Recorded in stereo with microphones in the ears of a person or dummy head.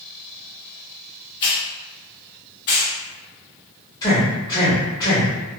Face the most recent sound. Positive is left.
turn(degrees=25)  # may be behind; listen again after turning